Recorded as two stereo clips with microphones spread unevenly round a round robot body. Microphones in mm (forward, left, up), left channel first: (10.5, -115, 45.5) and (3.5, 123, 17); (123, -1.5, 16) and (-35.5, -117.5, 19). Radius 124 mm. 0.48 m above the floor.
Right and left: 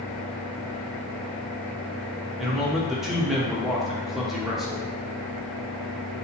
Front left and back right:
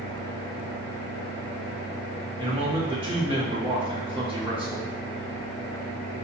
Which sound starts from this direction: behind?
A man speaking, at 2.4 s.